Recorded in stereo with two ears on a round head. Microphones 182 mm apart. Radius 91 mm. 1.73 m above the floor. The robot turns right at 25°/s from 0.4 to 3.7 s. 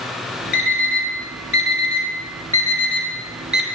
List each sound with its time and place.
0.5 s an alarm clock: 50° left (ahead or behind), 1.8 m; by 3.6 s 5° right (ahead or behind), 1.8 m